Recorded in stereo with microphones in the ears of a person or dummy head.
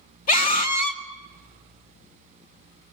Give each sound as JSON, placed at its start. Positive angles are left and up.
{"t": 0.3, "sound": "a scream", "side_deg": 50, "distance_m": 1.8}